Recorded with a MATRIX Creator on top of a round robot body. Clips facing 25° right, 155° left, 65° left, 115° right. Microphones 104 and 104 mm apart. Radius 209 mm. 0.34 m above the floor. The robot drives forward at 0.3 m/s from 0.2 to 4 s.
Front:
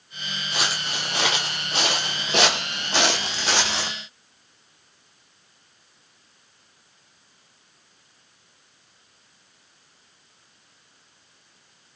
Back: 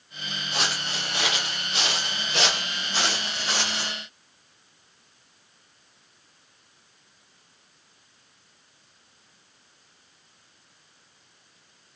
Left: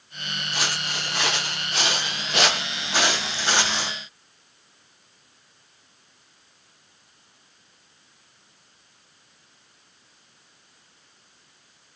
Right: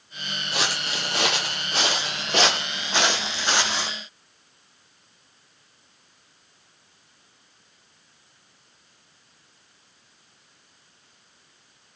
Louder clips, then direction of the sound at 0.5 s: Front 1 dB, right 2 dB; 110° right.